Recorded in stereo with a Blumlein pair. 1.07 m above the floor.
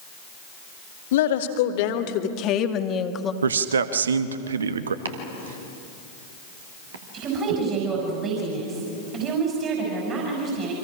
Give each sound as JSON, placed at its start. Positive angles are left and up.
{"t": 1.1, "sound": "a woman speaking", "azimuth_deg": 55, "distance_m": 2.5}
{"t": 3.4, "sound": "a man speaking", "azimuth_deg": -70, "distance_m": 1.2}
{"t": 5.0, "sound": "chopping", "azimuth_deg": -65, "distance_m": 2.5}
{"t": 7.1, "sound": "a woman speaking", "azimuth_deg": -30, "distance_m": 6.5}